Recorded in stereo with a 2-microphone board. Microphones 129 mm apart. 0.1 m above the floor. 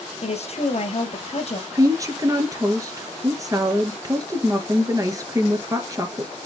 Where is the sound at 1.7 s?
25° right (ahead or behind), 1.9 m.